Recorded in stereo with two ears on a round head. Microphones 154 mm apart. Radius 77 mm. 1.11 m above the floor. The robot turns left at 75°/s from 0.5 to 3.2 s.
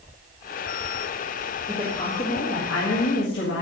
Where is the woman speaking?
Straight behind, 1.7 m; by 3.6 s 65° left, 1.7 m.